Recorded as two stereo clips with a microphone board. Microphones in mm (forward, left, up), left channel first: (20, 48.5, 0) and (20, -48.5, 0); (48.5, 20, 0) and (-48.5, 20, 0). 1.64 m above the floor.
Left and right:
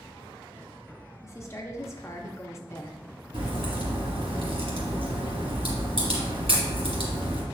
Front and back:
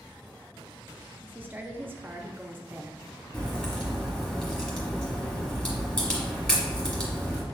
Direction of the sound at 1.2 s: 125° left.